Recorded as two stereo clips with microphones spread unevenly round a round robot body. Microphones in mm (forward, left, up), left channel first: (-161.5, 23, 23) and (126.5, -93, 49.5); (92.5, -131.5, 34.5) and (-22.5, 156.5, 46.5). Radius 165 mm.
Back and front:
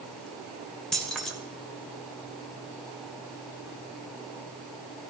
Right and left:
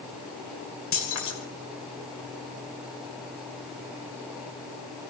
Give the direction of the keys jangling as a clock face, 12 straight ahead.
4 o'clock.